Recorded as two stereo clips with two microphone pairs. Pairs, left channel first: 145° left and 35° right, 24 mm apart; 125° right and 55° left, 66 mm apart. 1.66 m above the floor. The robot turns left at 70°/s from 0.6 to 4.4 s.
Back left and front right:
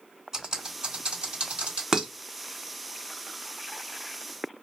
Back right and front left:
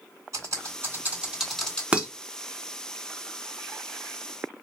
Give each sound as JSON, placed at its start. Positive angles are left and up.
{"t": 0.3, "sound": "typing on a keyboard", "azimuth_deg": 30, "distance_m": 3.0}
{"t": 1.9, "sound": "dishes clattering", "azimuth_deg": -5, "distance_m": 0.7}